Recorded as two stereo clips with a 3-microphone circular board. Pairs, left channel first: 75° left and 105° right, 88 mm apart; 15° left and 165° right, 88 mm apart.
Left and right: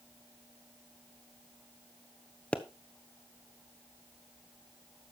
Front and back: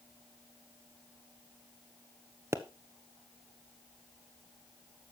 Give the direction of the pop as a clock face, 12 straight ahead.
7 o'clock.